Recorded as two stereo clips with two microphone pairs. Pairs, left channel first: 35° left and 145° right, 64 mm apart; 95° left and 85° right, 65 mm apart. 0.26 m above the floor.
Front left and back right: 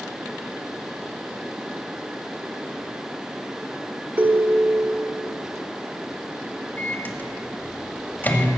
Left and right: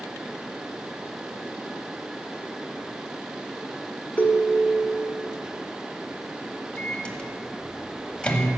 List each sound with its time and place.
4.2 s a ringtone: 155° left, 0.8 m
6.8 s a microwave: 40° left, 1.0 m